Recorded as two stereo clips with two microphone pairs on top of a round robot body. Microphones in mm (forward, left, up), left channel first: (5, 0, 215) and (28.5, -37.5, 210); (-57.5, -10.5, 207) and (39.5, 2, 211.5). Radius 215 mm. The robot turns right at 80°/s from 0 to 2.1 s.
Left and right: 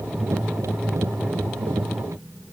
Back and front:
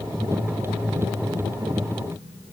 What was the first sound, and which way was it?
Only background noise.